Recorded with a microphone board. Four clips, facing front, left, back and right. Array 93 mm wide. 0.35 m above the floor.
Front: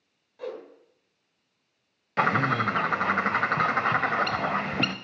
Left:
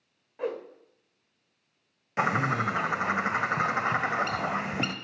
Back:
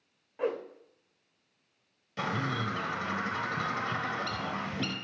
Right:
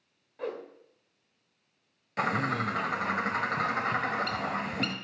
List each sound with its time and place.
0.4 s a whoosh: 155° left, 1.3 m
2.2 s a bird: 20° left, 0.8 m